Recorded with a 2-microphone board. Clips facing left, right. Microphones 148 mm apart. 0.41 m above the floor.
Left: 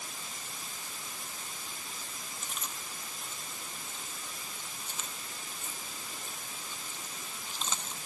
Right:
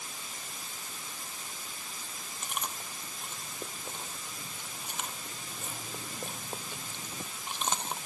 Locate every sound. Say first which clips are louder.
2.4 s chewing: right 7 dB; 65° right (ahead or behind)